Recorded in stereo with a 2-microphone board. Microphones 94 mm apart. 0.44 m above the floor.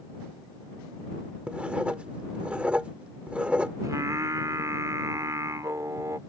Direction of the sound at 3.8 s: 35° right (ahead or behind).